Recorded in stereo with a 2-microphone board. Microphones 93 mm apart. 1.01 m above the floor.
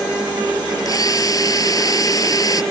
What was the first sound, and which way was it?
A drill, 40° left (ahead or behind).